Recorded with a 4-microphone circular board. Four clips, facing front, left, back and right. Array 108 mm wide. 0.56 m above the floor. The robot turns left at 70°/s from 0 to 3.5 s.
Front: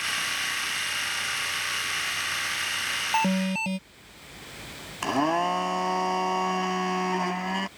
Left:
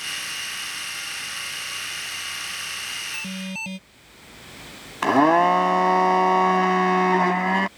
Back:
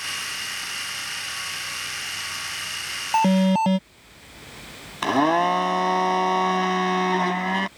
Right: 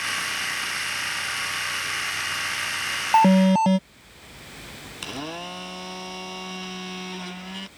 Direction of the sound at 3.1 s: 100° right.